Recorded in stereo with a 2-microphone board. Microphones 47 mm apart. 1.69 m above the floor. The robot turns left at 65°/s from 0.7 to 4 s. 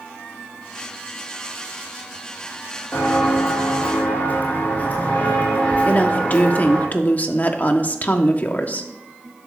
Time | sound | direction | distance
2.9 | footsteps | 40° left (ahead or behind) | 4 m
5.8 | a woman speaking | 35° left (ahead or behind) | 1.1 m